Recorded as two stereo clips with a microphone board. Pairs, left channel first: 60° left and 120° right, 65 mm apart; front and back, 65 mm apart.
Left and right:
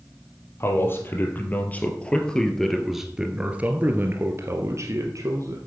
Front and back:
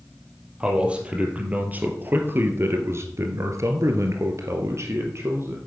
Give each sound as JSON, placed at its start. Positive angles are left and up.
{"t": 0.6, "sound": "a man speaking", "azimuth_deg": 110, "distance_m": 3.0}